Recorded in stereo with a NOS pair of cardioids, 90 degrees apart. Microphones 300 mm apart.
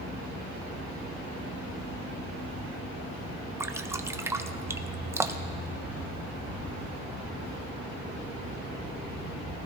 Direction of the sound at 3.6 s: 10° right.